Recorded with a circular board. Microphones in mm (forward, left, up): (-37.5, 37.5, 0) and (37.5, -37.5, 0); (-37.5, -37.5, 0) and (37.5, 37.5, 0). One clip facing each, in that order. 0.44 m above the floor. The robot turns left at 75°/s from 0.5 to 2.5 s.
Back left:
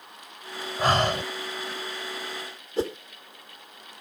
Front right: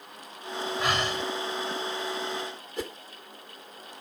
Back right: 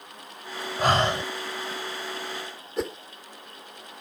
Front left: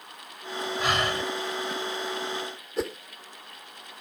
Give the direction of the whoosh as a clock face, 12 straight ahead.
8 o'clock.